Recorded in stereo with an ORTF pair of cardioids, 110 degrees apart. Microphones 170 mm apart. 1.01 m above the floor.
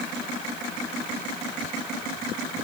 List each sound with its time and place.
Only background noise.